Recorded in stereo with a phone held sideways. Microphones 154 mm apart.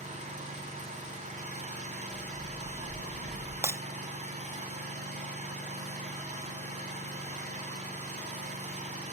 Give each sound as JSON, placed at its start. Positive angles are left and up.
{"t": 0.0, "sound": "an engine running", "side_deg": -45, "distance_m": 2.0}
{"t": 2.1, "sound": "a bird", "side_deg": -45, "distance_m": 1.6}
{"t": 3.6, "sound": "breaking glass", "side_deg": -15, "distance_m": 0.6}